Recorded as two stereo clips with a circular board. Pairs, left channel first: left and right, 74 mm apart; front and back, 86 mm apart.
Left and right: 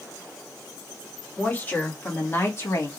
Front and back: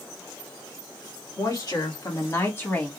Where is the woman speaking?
25° left, 2 m; by 2.9 s 65° left, 1.2 m.